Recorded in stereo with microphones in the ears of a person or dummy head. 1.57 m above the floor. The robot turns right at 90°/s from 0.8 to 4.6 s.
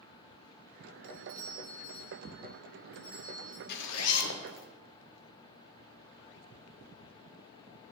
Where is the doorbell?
55° right, 1.8 m; by 3.6 s 175° left, 1.8 m.